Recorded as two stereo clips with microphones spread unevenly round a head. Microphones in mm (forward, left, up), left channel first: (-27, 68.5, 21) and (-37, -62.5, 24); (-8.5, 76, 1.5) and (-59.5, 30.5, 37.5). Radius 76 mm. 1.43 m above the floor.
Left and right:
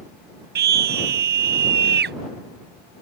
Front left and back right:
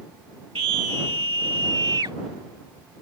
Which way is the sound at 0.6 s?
85° right.